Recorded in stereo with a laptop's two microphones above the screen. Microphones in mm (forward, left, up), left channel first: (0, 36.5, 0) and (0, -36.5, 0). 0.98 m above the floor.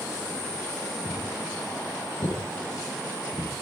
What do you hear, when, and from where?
1.1 s footsteps: 55° left (ahead or behind), 5.5 m; by 3.5 s 65° left (ahead or behind), 6.5 m